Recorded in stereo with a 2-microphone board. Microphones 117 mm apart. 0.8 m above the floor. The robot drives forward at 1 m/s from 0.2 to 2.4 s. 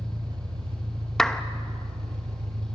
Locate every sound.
0.0 s an engine running: 45° right (ahead or behind), 2.5 m; by 2.8 s 75° right (ahead or behind), 2 m
1.2 s a clap: 5° left (ahead or behind), 0.8 m